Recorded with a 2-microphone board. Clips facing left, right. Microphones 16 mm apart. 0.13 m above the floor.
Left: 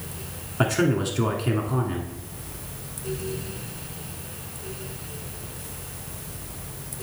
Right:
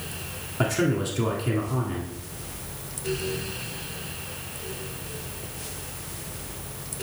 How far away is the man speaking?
About 1.1 m.